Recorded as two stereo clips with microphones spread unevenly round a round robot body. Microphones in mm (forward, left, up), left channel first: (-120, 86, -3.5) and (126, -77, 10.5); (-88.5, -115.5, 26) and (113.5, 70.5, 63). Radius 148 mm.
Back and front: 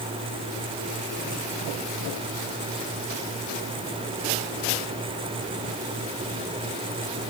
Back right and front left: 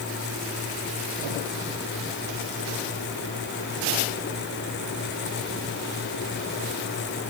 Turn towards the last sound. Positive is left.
No sound to turn to.